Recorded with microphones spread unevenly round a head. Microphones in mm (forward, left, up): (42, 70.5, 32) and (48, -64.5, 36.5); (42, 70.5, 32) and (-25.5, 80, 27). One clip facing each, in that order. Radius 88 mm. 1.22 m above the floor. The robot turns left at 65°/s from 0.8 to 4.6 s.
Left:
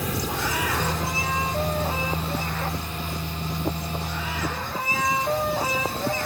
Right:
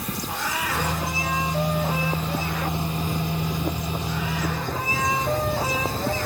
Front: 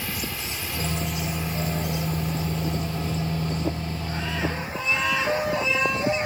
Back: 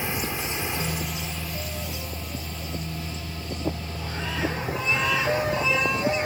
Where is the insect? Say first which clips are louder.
Left 2 dB, back 3 dB; 105° left; by 6.3 s 145° right.